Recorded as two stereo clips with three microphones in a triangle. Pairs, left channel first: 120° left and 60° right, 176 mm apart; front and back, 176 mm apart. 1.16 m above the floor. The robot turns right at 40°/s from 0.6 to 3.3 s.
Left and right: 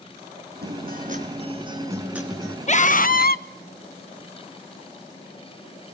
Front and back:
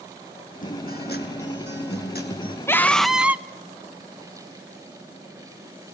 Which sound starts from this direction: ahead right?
A guitar, at 0.6 s.